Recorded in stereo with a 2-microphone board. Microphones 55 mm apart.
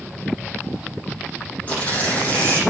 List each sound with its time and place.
1.7 s tearing paper: 25° left (ahead or behind), 7 m